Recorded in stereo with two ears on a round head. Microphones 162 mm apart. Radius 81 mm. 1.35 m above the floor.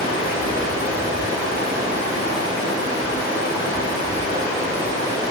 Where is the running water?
20° right (ahead or behind), 1.2 m.